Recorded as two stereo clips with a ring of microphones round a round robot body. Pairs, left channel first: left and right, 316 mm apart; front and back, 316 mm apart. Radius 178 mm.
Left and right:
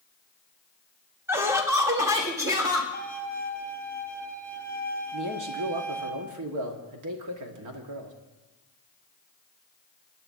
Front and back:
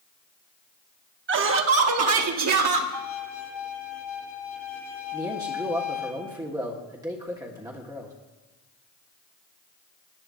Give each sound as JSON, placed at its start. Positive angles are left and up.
{"t": 1.3, "sound": "laughter", "azimuth_deg": -165, "distance_m": 0.9}
{"t": 2.9, "sound": "a violin", "azimuth_deg": -45, "distance_m": 1.9}
{"t": 5.1, "sound": "a man speaking", "azimuth_deg": -100, "distance_m": 1.4}